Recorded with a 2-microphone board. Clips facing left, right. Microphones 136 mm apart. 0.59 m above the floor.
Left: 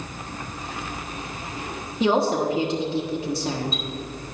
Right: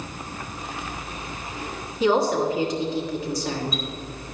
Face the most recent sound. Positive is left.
turn(degrees=25)  # may be behind; listen again after turning